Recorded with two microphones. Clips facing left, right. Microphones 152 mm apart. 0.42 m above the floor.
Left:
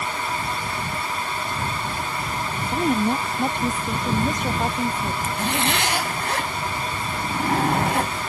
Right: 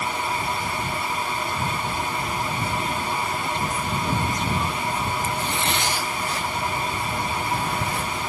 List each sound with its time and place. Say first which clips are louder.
2.6 s a woman speaking: left 5 dB; 55° left (ahead or behind)
5.2 s a zipper: left 2 dB; 75° left (ahead or behind)